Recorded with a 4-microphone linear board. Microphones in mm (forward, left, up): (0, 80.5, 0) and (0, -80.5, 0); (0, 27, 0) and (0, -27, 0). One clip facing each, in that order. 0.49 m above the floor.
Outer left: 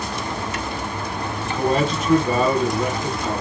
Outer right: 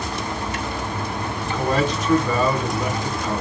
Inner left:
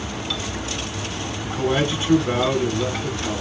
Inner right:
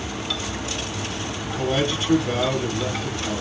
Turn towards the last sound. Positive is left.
turn(degrees=25)  # may be behind; listen again after turning